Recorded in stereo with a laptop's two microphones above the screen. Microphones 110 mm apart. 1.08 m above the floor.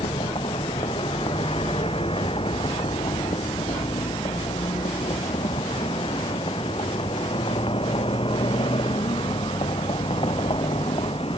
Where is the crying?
I don't hear crying.